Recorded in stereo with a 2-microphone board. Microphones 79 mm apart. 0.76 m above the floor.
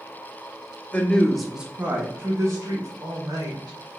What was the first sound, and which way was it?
A woman speaking, 20° left (ahead or behind).